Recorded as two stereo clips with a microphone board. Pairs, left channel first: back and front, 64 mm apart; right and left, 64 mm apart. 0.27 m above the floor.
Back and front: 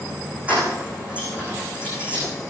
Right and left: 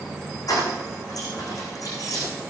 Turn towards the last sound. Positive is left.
turn(degrees=-70)